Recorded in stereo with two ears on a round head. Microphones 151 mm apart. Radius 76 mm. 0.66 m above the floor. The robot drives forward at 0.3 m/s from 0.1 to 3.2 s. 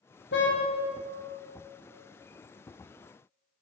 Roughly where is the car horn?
Left.